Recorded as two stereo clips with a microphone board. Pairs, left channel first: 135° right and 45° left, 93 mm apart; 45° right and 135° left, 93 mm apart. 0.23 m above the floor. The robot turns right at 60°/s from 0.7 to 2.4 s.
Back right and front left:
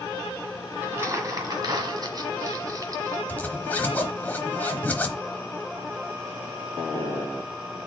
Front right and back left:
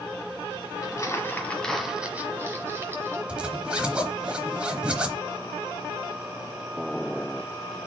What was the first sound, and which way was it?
Crumpling, 15° right.